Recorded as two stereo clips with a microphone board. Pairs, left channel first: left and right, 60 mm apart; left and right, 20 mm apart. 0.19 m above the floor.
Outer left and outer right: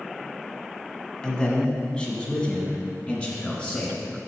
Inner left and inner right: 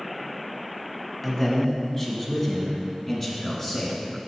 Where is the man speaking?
15° left (ahead or behind), 1.3 m; by 4.0 s 20° left (ahead or behind), 2.5 m.